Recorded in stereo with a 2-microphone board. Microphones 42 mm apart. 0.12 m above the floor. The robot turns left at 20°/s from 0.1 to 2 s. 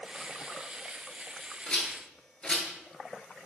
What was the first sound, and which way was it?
A rattle, 25° left (ahead or behind).